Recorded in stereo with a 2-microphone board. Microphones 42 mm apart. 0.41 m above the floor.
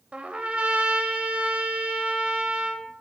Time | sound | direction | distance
0.1 | a trumpet | 30° right (ahead or behind) | 0.6 m